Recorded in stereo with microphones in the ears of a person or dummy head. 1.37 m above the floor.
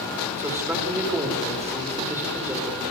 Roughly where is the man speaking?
Centre.